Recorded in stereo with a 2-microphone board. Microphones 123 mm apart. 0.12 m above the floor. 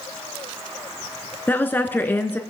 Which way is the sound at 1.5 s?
15° left (ahead or behind).